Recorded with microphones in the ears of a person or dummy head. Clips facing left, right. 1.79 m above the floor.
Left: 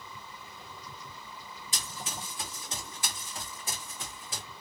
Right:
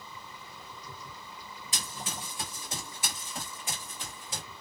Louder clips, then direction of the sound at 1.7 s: Right 1 dB; 30° right (ahead or behind).